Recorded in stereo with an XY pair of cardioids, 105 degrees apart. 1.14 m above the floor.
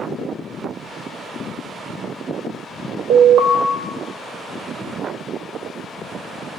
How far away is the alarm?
About 0.7 m.